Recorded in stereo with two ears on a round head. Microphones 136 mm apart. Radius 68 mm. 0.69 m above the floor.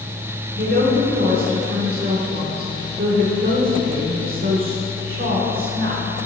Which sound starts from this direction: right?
A woman speaking, at 0.6 s.